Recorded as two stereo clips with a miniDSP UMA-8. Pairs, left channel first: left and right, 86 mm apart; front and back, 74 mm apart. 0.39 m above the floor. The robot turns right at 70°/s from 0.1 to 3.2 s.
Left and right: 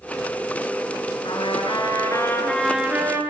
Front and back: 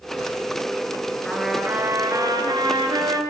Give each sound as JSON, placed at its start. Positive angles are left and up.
{"t": 1.2, "sound": "a trumpet", "azimuth_deg": 80, "distance_m": 7.0}